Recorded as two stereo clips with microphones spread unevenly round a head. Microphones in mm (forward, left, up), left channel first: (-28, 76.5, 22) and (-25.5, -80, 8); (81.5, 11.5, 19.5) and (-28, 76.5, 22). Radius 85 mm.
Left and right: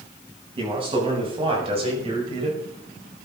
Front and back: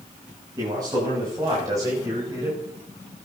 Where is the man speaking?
145° right, 8.5 m; by 2.6 s 140° right, 5.5 m.